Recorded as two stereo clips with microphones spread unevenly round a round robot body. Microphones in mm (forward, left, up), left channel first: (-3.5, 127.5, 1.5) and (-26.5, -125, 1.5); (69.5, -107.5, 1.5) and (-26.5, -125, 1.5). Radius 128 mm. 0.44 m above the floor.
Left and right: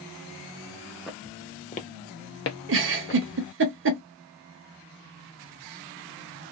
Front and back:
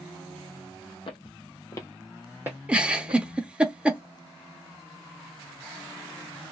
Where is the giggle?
95° right, 0.7 m.